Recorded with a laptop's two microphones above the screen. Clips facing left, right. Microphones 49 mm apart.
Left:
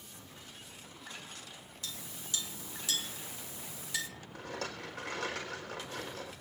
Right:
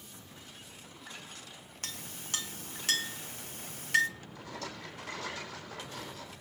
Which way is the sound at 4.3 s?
70° left (ahead or behind).